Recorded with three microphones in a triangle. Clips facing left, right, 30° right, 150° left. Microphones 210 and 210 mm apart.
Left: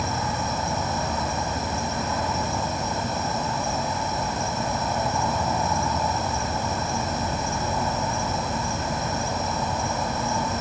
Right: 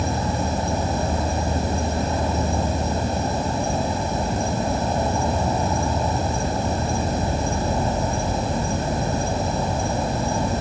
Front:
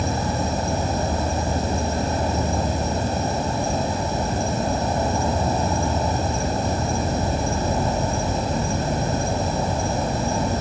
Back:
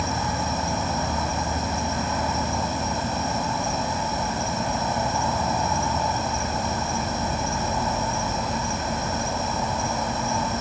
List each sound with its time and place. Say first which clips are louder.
0.0 s an insect: right 4 dB, front 4 dB; 55° right, 1.3 m